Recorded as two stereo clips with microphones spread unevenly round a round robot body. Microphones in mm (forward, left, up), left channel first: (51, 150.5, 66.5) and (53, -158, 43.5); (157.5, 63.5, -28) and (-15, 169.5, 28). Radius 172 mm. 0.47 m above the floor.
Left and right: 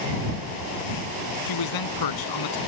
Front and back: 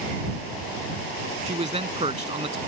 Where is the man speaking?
90° left.